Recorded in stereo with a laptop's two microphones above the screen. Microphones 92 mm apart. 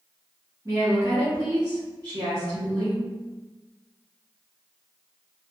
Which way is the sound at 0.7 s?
40° right (ahead or behind).